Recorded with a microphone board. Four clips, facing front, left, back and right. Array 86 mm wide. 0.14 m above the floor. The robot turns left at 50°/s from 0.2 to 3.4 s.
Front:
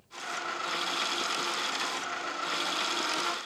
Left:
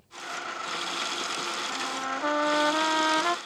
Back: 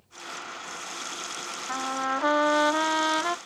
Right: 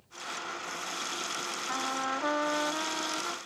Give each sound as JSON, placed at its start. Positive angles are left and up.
{"t": 1.7, "sound": "a trumpet", "azimuth_deg": -155}